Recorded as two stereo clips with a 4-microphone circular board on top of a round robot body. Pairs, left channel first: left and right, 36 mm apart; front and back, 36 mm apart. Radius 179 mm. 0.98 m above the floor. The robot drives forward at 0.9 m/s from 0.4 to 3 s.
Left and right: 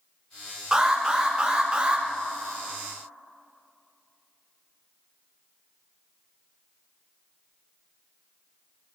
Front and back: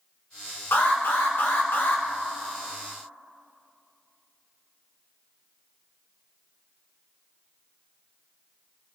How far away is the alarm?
About 3 m.